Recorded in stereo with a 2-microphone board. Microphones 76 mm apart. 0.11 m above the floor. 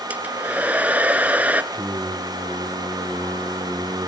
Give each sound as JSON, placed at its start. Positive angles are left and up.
{"t": 0.1, "sound": "a hair dryer", "side_deg": -20, "distance_m": 0.8}
{"t": 1.7, "sound": "singing", "side_deg": -45, "distance_m": 2.5}